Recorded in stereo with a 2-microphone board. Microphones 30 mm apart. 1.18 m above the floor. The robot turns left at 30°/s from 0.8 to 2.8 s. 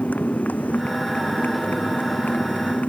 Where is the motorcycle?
60° left (ahead or behind); by 2.9 s 55° left (ahead or behind).